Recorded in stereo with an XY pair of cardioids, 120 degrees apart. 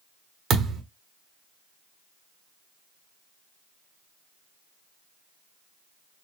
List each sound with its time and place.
0.5 s a thud: 50° right, 1.3 m